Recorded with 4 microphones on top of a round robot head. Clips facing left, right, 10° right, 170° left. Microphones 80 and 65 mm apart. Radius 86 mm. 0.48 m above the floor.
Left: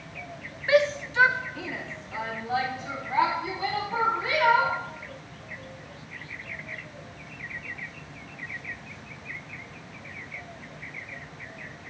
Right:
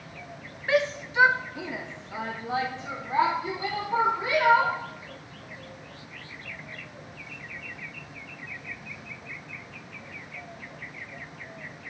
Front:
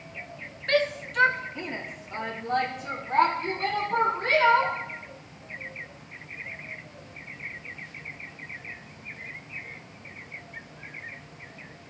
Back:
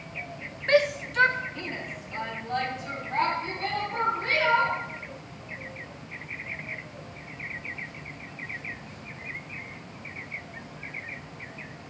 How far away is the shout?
About 0.8 m.